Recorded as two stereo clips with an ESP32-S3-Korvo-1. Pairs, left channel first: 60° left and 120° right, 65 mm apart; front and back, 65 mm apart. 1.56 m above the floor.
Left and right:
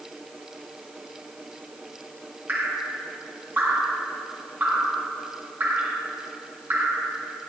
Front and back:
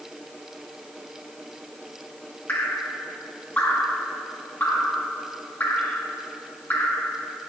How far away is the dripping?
About 1.6 m.